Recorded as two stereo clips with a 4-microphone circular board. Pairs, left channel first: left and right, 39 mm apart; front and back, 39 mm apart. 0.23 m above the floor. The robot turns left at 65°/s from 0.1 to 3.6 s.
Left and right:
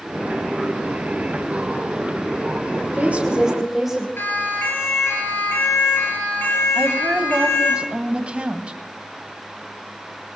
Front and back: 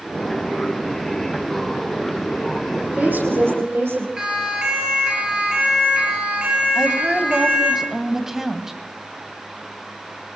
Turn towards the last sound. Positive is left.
turn(degrees=-105)